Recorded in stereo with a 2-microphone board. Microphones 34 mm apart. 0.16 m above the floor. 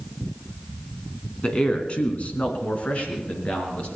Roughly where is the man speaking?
Left.